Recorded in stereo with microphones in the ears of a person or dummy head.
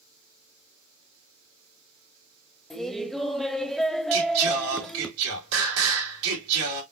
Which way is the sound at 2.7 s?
Centre (ahead or behind).